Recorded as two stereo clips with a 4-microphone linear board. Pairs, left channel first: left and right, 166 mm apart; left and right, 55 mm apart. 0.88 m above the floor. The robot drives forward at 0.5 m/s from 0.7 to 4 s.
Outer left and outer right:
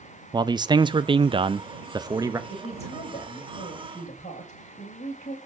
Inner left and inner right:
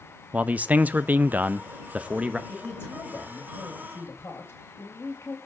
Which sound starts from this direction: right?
A man speaking, at 0.3 s.